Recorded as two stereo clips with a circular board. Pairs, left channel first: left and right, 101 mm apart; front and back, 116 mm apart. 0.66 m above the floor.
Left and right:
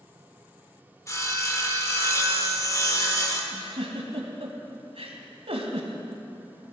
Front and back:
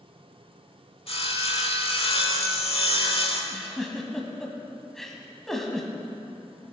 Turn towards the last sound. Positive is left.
turn(degrees=-85)